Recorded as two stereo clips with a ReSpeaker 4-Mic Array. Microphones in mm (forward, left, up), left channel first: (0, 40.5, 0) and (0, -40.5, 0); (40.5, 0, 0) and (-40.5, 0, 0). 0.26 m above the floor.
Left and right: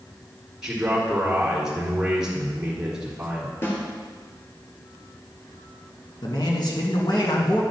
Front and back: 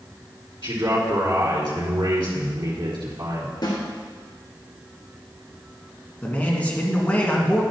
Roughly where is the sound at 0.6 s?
Behind.